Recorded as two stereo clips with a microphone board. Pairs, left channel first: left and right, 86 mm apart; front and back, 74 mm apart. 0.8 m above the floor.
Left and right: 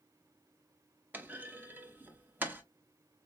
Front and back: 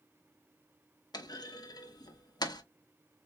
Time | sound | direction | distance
1.1 | a clunk | 25° right | 0.7 m